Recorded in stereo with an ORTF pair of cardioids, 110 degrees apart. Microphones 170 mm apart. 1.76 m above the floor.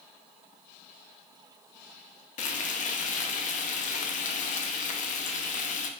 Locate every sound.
2.4 s frying: 55° left, 0.6 m